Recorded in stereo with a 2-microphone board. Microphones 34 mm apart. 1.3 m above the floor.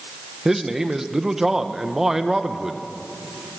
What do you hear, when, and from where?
0.5 s a man speaking: 15° right (ahead or behind), 1.4 m